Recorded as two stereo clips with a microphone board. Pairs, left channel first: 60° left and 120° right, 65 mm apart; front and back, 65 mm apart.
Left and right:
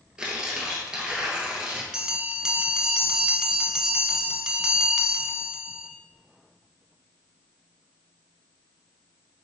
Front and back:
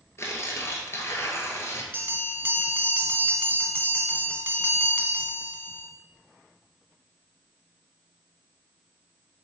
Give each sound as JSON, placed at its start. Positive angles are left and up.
{"t": 0.2, "sound": "tearing paper", "azimuth_deg": -45, "distance_m": 1.0}
{"t": 1.9, "sound": "a bell", "azimuth_deg": 175, "distance_m": 0.5}